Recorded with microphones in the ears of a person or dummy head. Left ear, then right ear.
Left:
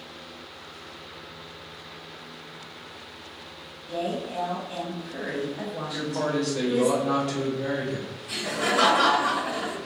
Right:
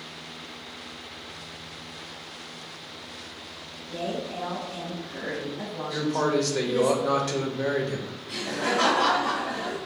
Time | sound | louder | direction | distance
3.9 | a woman speaking | left 2 dB | 25° left (ahead or behind) | 0.6 m
5.9 | a man speaking | right 4 dB | 55° right (ahead or behind) | 0.8 m
8.3 | laughter | left 1 dB | 65° left (ahead or behind) | 1.0 m